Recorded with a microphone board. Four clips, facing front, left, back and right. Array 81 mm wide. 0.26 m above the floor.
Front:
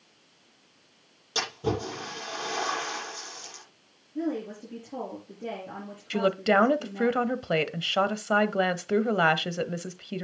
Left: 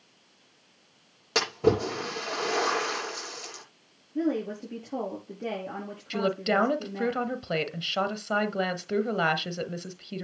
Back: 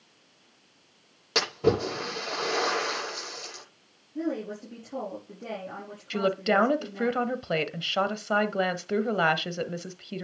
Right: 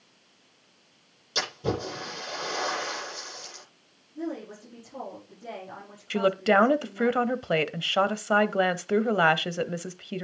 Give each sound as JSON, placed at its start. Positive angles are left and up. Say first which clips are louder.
{"t": 1.4, "sound": "a splash", "louder": "left 6 dB, back 5 dB", "azimuth_deg": 125, "distance_m": 8.5}
{"t": 4.2, "sound": "a woman speaking", "louder": "left 7 dB, even", "azimuth_deg": 90, "distance_m": 5.5}
{"t": 6.1, "sound": "a woman speaking", "louder": "right 4 dB, front 1 dB", "azimuth_deg": -75, "distance_m": 0.9}